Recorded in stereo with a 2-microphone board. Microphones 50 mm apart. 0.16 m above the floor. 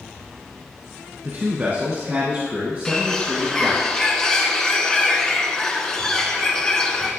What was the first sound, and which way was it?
A man speaking, 40° right (ahead or behind).